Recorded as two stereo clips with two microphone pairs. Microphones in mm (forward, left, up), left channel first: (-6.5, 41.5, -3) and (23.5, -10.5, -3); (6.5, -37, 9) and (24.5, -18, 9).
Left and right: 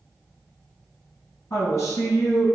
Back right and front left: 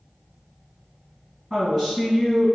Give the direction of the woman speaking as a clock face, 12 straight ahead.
8 o'clock.